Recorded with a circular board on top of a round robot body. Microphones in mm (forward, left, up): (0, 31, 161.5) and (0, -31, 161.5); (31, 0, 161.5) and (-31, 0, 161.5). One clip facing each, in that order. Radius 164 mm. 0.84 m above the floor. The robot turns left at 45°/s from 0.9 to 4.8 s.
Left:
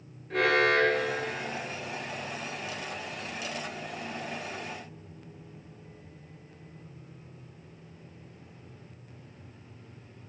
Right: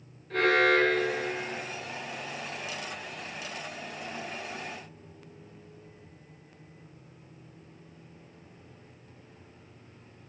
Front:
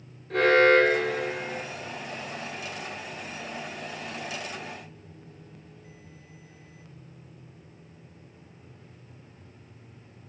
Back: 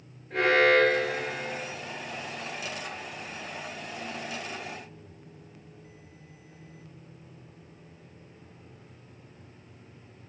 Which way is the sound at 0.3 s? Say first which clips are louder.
Right 1 dB, front 3 dB; 10° left.